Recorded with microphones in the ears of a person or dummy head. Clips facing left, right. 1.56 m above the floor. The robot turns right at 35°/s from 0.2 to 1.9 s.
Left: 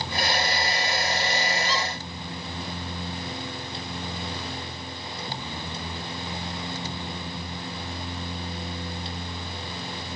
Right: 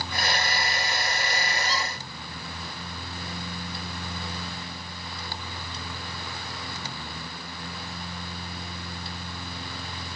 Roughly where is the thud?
No thud in this recording.